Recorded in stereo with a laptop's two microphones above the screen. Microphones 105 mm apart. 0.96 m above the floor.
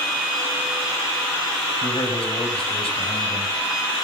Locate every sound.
1.8 s a man speaking: 70° left (ahead or behind), 4.5 m